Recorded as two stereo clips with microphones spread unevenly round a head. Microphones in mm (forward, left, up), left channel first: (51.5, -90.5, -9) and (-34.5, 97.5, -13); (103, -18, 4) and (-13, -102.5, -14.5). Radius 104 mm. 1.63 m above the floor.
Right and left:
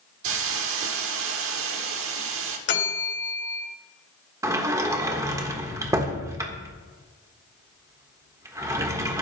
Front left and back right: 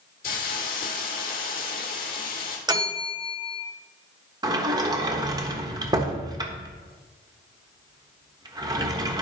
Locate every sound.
0.2 s a hiss: 85° left, 1.3 m
2.7 s a bell: 80° right, 2 m
4.4 s a sliding door: 170° left, 1.3 m